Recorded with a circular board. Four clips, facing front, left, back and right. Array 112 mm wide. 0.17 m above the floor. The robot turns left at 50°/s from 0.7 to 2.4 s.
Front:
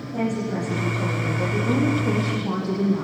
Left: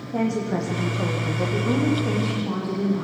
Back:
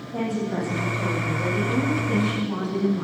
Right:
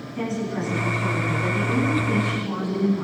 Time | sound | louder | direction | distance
0.1 | a woman speaking | left 3 dB, front 1 dB | 105° left | 8 m